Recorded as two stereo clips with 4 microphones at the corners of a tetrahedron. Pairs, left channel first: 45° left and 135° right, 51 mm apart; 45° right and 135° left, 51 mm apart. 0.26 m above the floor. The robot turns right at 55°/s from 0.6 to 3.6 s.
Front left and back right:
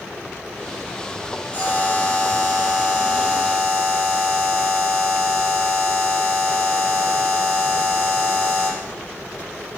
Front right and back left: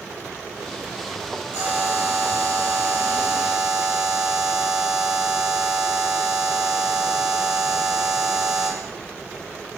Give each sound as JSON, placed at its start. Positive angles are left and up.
{"t": 1.5, "sound": "a buzzer", "azimuth_deg": 85, "distance_m": 1.8}